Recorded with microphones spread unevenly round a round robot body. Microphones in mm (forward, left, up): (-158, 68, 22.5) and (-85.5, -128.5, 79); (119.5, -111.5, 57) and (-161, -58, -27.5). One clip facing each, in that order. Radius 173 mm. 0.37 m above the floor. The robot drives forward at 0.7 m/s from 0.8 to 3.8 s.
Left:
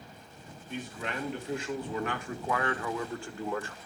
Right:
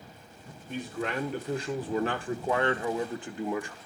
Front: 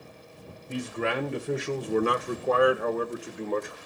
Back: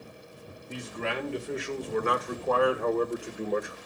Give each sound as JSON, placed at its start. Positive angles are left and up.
{"t": 0.7, "sound": "a man speaking", "azimuth_deg": -10, "distance_m": 1.9}